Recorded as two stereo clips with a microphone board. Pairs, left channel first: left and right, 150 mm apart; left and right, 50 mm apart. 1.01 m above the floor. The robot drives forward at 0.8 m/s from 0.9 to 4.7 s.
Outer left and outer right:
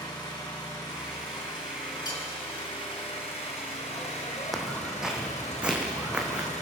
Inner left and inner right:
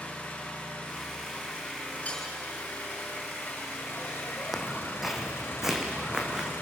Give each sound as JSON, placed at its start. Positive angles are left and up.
{"t": 0.0, "sound": "an engine running", "side_deg": 30, "distance_m": 7.0}
{"t": 2.0, "sound": "cutlery clinking", "side_deg": 25, "distance_m": 8.5}
{"t": 4.5, "sound": "footsteps", "side_deg": 0, "distance_m": 2.0}